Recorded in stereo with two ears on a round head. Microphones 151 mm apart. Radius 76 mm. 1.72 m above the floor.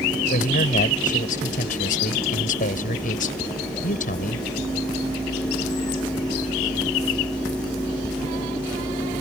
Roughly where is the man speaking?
Left.